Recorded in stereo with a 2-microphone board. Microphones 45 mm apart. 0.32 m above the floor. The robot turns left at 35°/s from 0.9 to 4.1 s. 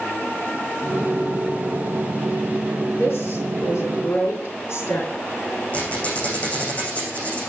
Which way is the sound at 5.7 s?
30° left (ahead or behind).